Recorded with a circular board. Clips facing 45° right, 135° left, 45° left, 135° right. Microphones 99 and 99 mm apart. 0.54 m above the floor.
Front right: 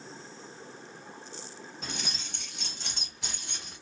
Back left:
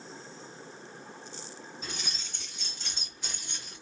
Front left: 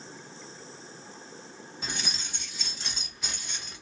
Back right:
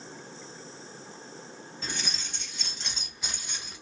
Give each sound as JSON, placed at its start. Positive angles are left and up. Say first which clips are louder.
{"t": 1.8, "sound": "keys jangling", "louder": "front right 5 dB, even", "azimuth_deg": -30, "distance_m": 2.0}